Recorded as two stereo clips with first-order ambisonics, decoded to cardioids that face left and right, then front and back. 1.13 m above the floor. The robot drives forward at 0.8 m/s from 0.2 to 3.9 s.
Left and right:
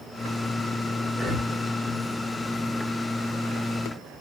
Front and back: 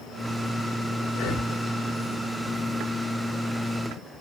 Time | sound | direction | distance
1.1 | breathing | 10° right | 2.5 m